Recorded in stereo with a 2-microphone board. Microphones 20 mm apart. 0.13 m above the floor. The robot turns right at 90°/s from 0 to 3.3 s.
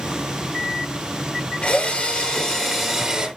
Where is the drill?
70° left, 3 m; by 3.3 s 140° right, 3 m.